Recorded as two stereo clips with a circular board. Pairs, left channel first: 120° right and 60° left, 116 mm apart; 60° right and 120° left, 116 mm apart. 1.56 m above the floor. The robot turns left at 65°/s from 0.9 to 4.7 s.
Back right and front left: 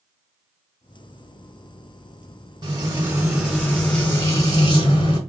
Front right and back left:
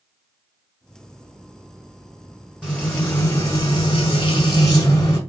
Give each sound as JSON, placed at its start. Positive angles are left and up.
{"t": 2.6, "sound": "frying", "azimuth_deg": 35, "distance_m": 1.7}